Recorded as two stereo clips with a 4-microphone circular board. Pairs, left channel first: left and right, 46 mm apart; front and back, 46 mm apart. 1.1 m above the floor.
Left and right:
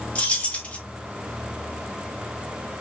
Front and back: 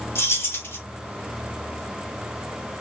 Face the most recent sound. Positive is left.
turn(degrees=25)